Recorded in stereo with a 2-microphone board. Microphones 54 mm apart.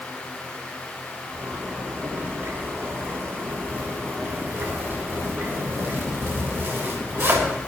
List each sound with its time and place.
1.3 s a zipper: 45° right (ahead or behind), 5 m